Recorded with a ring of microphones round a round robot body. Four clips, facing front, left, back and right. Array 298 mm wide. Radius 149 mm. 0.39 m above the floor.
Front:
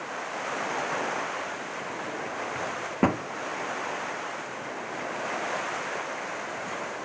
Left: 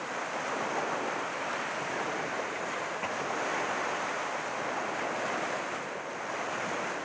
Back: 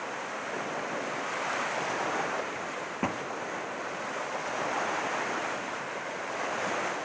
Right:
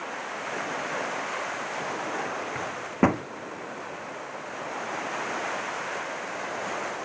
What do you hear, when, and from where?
2.5 s a microwave: 65° right